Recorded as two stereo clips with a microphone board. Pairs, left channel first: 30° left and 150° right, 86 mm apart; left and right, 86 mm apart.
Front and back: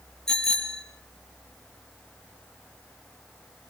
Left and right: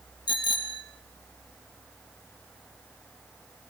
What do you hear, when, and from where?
0.3 s a bicycle bell: 115° left, 2 m